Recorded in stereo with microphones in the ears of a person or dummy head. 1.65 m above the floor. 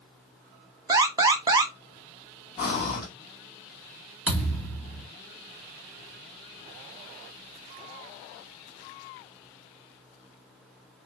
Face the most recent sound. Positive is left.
turn(degrees=10)  # may be behind; listen again after turning